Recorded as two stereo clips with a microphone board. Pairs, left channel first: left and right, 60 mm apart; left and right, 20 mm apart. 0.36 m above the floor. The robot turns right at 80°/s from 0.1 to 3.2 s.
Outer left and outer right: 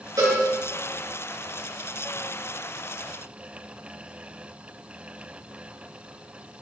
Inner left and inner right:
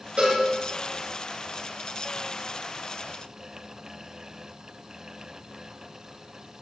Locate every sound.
0.2 s a cowbell: 75° right (ahead or behind), 4 m; by 0.4 s 60° right (ahead or behind), 4 m